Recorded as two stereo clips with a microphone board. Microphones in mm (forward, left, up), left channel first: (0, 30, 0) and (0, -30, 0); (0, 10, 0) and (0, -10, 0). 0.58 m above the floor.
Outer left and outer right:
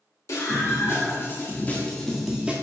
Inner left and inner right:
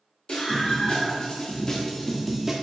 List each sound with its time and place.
0.3 s a scream: 60° left (ahead or behind), 1.9 m; by 2.5 s 20° right (ahead or behind), 1.0 m